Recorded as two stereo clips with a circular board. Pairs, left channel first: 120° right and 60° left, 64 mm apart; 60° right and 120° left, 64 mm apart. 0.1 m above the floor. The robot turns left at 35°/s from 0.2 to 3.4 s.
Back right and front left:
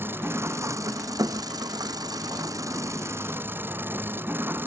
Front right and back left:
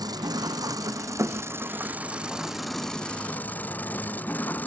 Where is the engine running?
115° left; by 4.7 s 5° left.